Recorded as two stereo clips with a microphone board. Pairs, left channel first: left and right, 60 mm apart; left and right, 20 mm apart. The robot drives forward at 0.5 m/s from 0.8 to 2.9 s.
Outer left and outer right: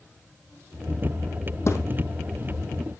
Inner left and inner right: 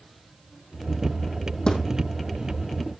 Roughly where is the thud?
Left.